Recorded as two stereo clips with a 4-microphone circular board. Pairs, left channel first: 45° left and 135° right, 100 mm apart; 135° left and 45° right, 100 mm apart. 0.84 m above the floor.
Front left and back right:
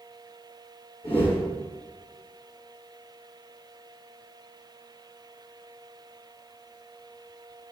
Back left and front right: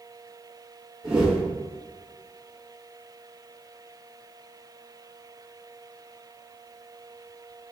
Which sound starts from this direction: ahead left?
A whoosh, at 1.0 s.